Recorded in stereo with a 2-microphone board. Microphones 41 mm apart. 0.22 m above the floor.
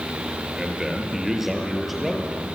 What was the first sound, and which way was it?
A man speaking, 15° right (ahead or behind).